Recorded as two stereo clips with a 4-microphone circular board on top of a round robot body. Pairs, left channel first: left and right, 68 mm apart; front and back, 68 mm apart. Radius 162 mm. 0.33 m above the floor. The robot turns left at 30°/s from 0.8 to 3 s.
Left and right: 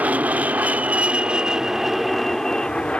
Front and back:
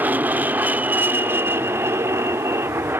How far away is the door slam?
No door slam in this recording.